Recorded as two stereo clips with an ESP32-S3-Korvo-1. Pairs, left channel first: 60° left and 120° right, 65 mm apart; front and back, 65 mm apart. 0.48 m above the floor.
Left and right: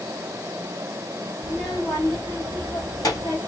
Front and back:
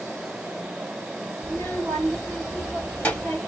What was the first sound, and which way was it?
A child speaking, 70° left.